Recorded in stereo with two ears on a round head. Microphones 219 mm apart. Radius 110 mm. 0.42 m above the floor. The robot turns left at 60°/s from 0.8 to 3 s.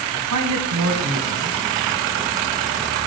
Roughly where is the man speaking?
Right.